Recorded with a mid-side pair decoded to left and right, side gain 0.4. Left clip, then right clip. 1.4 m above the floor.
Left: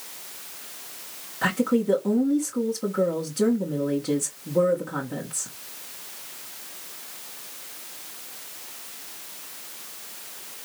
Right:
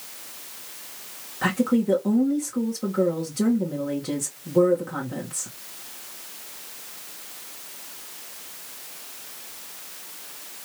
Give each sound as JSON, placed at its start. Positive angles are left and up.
{"t": 1.4, "sound": "a woman speaking", "azimuth_deg": -5, "distance_m": 2.0}